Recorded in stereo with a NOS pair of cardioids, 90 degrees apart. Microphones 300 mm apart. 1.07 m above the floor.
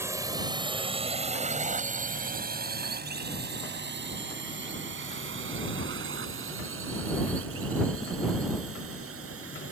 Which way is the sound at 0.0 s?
10° right.